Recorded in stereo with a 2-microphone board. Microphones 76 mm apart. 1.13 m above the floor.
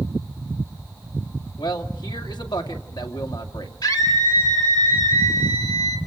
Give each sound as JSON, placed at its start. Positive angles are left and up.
{"t": 1.6, "sound": "a man speaking", "side_deg": 75, "distance_m": 2.0}
{"t": 3.8, "sound": "a scream", "side_deg": 70, "distance_m": 5.0}